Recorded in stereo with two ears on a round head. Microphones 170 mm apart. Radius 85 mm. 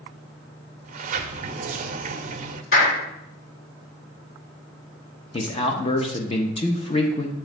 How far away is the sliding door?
About 0.5 m.